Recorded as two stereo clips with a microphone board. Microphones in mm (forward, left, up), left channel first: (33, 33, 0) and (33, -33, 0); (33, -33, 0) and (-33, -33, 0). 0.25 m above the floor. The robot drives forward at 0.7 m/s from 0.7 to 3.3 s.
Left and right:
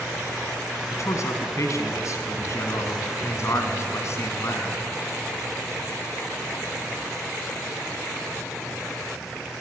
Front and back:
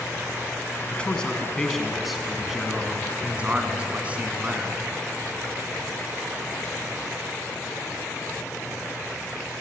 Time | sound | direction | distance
0.9 | a man speaking | 70° left | 2.5 m